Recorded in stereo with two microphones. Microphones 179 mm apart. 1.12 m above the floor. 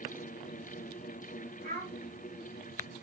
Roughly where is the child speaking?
Right.